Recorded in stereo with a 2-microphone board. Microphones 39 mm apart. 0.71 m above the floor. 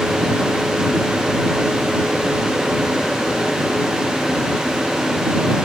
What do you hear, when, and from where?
Only background noise.